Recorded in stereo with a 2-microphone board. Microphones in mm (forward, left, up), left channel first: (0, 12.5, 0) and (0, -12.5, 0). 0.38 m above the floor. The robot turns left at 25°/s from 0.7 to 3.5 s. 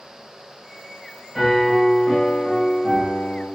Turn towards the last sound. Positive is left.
turn(degrees=115)